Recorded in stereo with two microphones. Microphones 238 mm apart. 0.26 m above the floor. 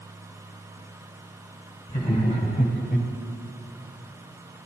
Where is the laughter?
20° left (ahead or behind), 2.5 m; by 3.1 s 25° left (ahead or behind), 1.4 m.